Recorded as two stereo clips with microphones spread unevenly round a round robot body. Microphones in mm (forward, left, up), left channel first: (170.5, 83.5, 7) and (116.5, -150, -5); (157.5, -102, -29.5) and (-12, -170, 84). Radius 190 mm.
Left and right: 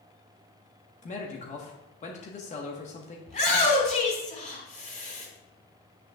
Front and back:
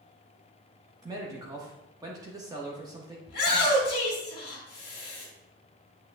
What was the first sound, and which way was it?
A man speaking, 75° left.